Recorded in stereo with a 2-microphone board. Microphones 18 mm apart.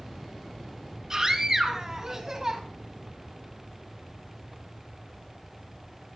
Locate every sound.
1.1 s a scream: 30° right (ahead or behind), 4.5 m; by 2.6 s 20° right (ahead or behind), 3.5 m